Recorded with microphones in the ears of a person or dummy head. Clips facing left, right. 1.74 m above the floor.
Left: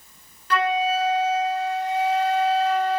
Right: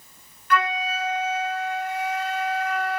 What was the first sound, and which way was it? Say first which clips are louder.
A flute: left 3 dB; 25° left (ahead or behind).